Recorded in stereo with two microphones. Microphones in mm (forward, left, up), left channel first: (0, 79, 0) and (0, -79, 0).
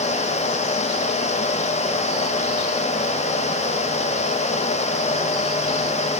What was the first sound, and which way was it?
Only background noise.